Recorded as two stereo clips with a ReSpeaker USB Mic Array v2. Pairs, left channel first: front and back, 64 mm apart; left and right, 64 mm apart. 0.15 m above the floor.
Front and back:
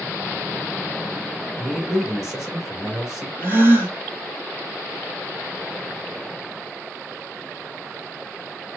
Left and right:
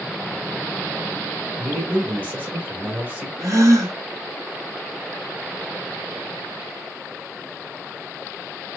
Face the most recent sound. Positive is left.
turn(degrees=-125)